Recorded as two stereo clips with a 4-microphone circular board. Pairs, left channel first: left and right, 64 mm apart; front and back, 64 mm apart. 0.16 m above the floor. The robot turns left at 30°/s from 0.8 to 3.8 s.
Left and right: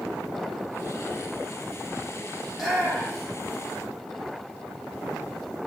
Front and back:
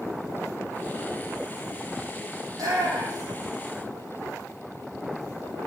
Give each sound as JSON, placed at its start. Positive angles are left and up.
{"t": 2.5, "sound": "a shout", "azimuth_deg": -175, "distance_m": 6.5}